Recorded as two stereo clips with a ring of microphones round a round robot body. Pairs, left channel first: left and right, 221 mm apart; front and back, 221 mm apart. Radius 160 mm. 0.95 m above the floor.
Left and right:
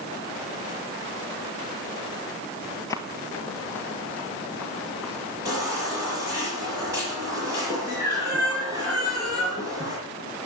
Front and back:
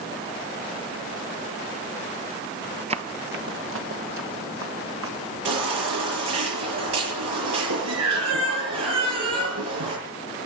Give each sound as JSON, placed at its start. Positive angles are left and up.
{"t": 2.9, "sound": "running footsteps", "azimuth_deg": 155, "distance_m": 1.0}
{"t": 5.5, "sound": "a baby crying", "azimuth_deg": -170, "distance_m": 8.0}